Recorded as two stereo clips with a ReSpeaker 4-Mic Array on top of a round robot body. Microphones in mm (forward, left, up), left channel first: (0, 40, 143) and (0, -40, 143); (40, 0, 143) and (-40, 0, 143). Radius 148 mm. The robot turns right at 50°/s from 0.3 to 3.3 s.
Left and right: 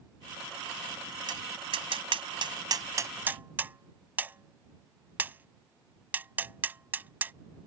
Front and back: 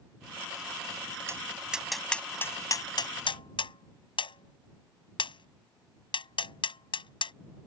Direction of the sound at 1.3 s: 120° right.